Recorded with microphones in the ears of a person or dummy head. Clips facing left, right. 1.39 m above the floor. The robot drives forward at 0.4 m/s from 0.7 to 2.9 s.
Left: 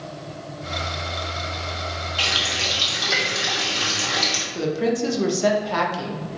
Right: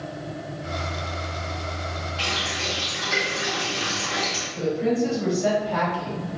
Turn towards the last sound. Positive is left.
turn(degrees=70)  # may be behind; listen again after turning